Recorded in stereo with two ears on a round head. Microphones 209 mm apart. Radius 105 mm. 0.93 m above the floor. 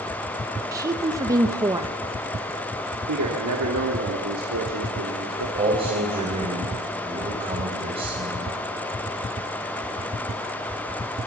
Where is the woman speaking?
15° right (ahead or behind), 0.9 m.